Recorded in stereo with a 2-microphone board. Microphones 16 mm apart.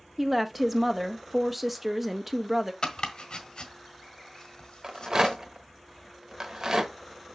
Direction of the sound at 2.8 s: 55° left (ahead or behind).